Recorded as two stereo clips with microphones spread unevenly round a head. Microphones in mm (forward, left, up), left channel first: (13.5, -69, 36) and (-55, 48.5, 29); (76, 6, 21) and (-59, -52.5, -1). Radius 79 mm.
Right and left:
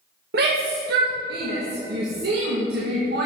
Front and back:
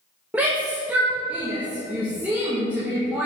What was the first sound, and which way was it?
A shout, 120° left.